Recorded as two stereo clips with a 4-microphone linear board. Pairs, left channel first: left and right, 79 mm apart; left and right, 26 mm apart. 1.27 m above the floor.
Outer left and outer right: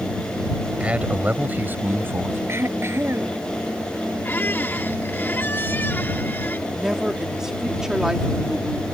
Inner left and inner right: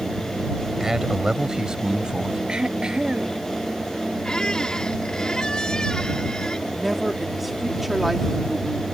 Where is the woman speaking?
5° right (ahead or behind).